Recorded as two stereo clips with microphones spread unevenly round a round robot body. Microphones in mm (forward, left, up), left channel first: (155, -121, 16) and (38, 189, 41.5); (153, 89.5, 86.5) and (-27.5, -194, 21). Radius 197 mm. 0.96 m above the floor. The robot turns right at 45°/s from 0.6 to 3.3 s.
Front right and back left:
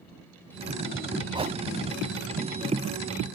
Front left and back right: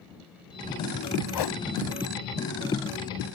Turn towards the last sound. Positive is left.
turn(degrees=125)